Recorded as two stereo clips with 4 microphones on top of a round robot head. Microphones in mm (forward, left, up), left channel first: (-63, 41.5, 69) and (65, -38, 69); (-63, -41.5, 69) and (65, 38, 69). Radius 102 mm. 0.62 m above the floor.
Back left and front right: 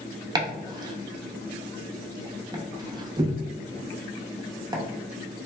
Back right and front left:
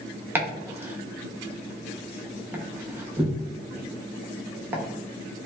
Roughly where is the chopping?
Ahead right.